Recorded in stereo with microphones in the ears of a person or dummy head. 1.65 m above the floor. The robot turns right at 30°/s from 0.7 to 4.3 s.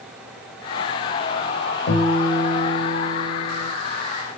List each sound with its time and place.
1.9 s a guitar: 60° left, 3 m; by 3.7 s 115° left, 3 m